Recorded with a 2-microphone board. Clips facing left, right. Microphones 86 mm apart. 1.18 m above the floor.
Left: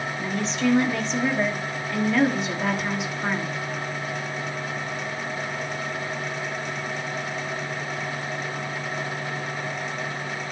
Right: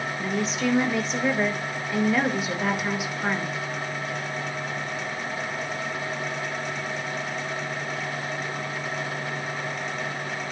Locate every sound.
0.2 s a woman speaking: 5° right (ahead or behind), 1.7 m